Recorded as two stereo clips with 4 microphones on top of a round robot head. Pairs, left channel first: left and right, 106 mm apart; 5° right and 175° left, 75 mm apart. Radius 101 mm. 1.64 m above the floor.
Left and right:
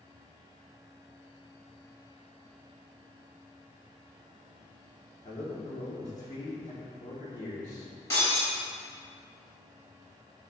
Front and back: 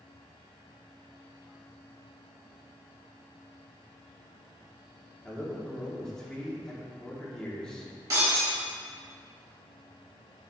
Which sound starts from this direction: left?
A man speaking, at 5.2 s.